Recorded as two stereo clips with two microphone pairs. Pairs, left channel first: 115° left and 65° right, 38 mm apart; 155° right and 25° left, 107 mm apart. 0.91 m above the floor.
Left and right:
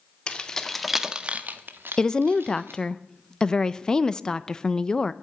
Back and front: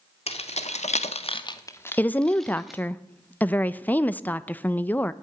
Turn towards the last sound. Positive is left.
turn(degrees=145)